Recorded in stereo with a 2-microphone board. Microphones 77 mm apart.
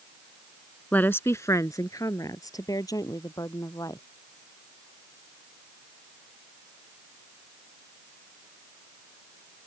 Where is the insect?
I don't hear an insect.